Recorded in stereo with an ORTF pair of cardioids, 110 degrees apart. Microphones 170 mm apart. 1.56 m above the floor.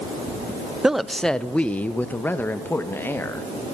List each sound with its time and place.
0.8 s a woman speaking: 5° right, 0.8 m; by 3.5 s 15° left, 3.5 m